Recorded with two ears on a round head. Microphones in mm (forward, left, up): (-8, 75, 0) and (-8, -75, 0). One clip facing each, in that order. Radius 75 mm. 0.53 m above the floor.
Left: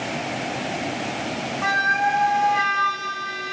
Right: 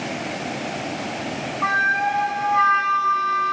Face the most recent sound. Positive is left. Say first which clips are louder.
# left 1 dB
turn(degrees=30)  # may be behind; listen again after turning